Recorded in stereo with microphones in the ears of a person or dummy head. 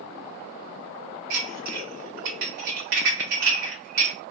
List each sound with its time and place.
1.3 s dishes clattering: 55° right (ahead or behind), 1.1 m